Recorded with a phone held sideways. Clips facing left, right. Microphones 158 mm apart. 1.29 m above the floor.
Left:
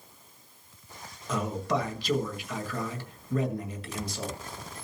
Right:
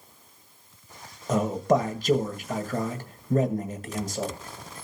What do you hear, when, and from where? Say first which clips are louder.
1.3 s a man speaking: right 7 dB; 50° right (ahead or behind), 1.7 m